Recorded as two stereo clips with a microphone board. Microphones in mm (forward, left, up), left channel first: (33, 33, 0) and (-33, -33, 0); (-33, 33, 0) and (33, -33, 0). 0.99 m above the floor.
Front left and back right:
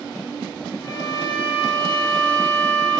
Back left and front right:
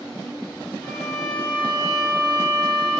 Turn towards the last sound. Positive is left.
turn(degrees=60)